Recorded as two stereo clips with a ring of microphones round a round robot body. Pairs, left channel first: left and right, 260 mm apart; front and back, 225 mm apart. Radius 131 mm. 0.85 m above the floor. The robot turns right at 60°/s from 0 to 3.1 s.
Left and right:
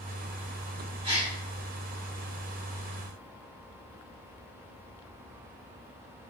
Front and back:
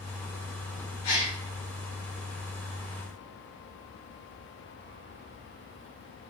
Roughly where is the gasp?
Ahead.